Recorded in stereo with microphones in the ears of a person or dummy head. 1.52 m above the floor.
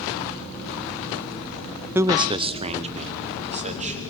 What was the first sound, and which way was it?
A man speaking, 10° right (ahead or behind).